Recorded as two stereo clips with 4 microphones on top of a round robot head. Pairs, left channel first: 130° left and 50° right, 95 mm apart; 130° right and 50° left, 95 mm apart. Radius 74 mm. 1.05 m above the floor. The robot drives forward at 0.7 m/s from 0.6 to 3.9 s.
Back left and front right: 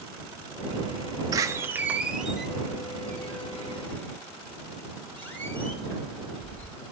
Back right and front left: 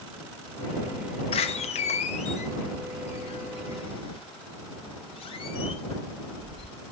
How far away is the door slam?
About 0.9 m.